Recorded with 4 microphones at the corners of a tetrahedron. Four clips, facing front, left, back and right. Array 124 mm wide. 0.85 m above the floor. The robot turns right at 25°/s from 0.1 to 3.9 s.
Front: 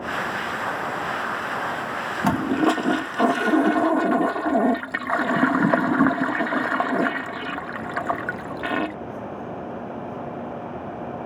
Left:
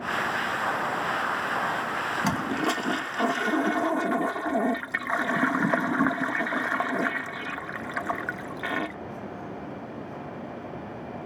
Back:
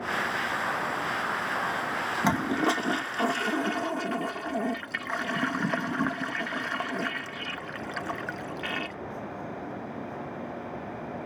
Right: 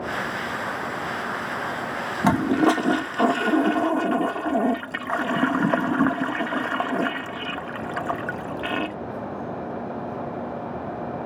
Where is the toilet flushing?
65° right; by 8.9 s 20° right.